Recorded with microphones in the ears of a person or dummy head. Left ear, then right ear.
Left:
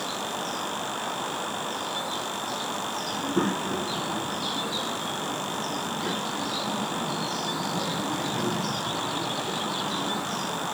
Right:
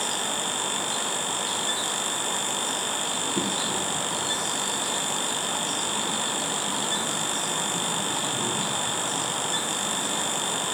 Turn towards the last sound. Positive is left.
turn(degrees=35)  # may be behind; listen again after turning